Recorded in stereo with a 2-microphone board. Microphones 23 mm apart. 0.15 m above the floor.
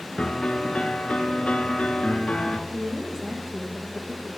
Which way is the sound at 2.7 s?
40° right (ahead or behind).